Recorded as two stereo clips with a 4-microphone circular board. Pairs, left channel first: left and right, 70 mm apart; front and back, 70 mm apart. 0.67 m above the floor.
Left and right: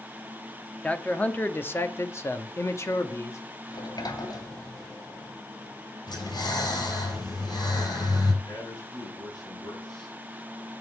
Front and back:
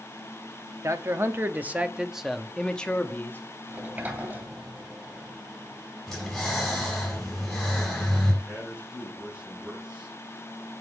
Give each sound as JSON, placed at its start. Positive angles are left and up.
{"t": 0.8, "sound": "a man speaking", "azimuth_deg": 155, "distance_m": 1.2}
{"t": 3.7, "sound": "a sliding door", "azimuth_deg": 110, "distance_m": 1.9}
{"t": 6.1, "sound": "breathing", "azimuth_deg": 85, "distance_m": 6.5}
{"t": 8.4, "sound": "a man speaking", "azimuth_deg": 100, "distance_m": 7.0}